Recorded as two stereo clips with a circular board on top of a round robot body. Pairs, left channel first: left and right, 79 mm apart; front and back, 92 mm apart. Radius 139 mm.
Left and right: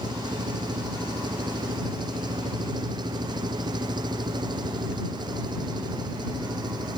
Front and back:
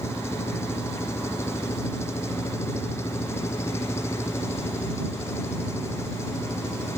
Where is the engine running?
60° right.